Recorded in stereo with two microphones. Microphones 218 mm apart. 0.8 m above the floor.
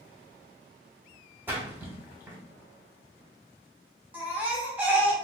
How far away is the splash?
About 1.1 m.